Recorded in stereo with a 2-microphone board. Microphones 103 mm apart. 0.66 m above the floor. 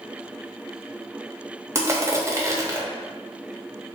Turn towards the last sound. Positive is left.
turn(degrees=-30)  # may be behind; listen again after turning